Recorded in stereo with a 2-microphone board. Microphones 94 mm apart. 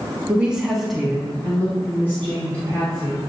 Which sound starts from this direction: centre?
A woman speaking, at 0.3 s.